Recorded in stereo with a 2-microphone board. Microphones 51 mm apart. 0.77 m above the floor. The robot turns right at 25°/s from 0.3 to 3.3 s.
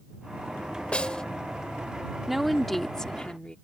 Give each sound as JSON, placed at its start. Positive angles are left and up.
{"t": 0.9, "sound": "a snare drum", "side_deg": 25}
{"t": 2.3, "sound": "a woman speaking", "side_deg": -5}